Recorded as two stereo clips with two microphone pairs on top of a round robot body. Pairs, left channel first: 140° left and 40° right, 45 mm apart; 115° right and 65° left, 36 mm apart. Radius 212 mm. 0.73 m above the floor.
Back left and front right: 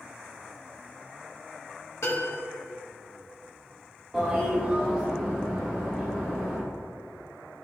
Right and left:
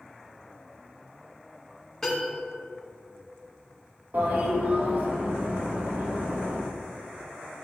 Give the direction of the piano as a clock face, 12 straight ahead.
6 o'clock.